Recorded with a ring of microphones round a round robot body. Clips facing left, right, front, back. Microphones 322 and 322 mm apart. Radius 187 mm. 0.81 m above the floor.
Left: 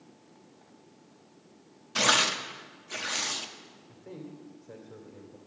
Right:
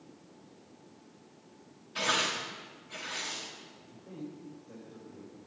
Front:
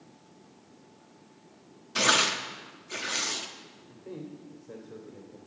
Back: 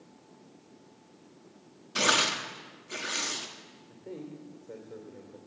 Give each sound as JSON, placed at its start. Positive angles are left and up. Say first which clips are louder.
{"t": 1.9, "sound": "tearing paper", "louder": "left 4 dB, front 1 dB", "azimuth_deg": 90, "distance_m": 1.5}
{"t": 3.9, "sound": "a man speaking", "louder": "even, front 1 dB", "azimuth_deg": 80, "distance_m": 3.0}